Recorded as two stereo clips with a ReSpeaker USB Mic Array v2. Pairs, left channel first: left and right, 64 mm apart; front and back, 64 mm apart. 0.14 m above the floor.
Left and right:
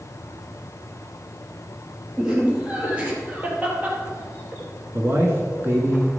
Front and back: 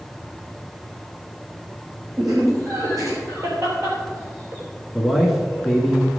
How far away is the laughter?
About 4 m.